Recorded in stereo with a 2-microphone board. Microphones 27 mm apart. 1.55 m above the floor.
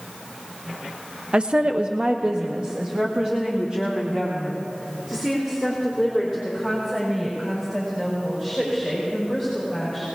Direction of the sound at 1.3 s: 35° right (ahead or behind).